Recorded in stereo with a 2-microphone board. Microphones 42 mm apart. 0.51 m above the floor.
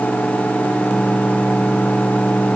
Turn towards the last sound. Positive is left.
No sound to turn to.